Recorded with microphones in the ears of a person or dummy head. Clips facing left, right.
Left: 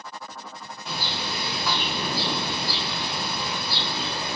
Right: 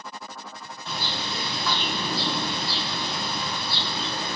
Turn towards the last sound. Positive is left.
turn(degrees=10)  # may be behind; listen again after turning